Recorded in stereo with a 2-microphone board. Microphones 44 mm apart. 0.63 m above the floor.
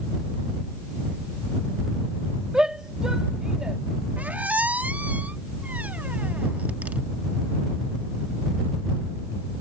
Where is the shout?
20° right (ahead or behind).